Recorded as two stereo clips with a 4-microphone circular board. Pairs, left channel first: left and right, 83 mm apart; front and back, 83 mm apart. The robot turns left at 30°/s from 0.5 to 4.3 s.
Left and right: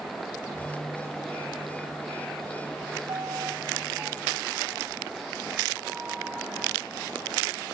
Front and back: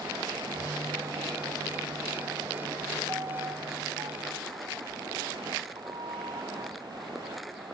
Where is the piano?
130° right; by 6.7 s 165° right.